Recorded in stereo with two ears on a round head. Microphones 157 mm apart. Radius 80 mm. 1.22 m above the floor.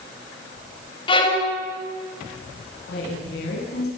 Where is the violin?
30° left (ahead or behind), 6.5 m.